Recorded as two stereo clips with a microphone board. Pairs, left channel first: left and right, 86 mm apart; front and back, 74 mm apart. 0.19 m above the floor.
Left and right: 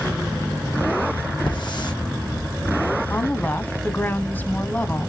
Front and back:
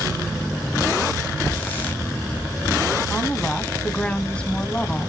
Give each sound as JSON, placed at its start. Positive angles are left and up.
{"t": 1.5, "sound": "a hiss", "azimuth_deg": 65, "distance_m": 4.0}
{"t": 3.1, "sound": "a woman speaking", "azimuth_deg": 60, "distance_m": 1.0}